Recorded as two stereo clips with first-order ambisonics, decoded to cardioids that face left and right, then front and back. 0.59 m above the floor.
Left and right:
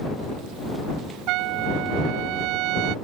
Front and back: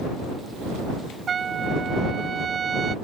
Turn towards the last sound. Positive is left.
turn(degrees=-115)